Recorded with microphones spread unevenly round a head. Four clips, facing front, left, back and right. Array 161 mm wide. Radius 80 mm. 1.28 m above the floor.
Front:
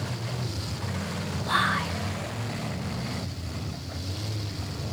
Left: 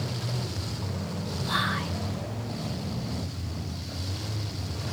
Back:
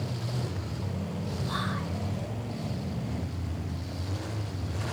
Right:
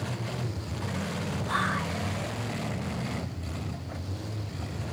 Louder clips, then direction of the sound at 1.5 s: Even, front 10 dB; 15° left.